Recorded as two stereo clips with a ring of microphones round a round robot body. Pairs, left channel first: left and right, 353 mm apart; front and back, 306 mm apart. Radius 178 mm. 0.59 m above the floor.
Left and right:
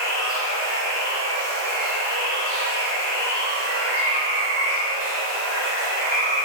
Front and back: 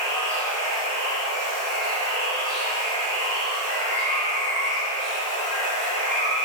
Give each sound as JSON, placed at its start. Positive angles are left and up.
{"t": 0.0, "sound": "running water", "azimuth_deg": -75, "distance_m": 4.0}